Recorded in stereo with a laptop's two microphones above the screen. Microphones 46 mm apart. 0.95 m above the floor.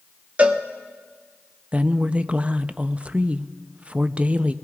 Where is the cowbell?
30° right (ahead or behind), 0.6 m.